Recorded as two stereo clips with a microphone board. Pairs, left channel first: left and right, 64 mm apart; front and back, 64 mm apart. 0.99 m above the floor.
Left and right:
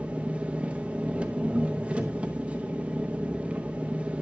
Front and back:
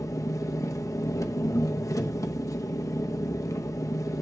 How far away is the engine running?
About 0.8 m.